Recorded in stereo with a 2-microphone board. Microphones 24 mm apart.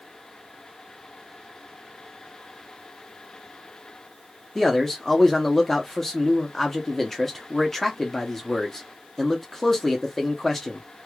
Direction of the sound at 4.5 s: 15° left (ahead or behind).